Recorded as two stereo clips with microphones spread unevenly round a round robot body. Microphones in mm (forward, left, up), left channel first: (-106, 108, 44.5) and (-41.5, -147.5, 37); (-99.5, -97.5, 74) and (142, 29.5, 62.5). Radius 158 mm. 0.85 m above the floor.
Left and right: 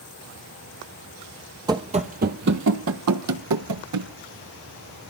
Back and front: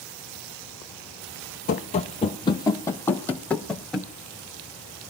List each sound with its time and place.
1.7 s running footsteps: 140° right, 0.9 m; by 4.1 s 65° right, 1.7 m